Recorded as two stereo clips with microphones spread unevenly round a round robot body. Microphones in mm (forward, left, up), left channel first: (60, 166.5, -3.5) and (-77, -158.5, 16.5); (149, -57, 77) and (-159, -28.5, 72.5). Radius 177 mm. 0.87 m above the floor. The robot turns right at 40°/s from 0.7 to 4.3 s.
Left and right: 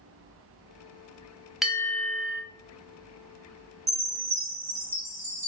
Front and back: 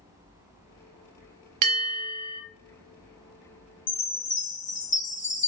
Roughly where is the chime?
Ahead right.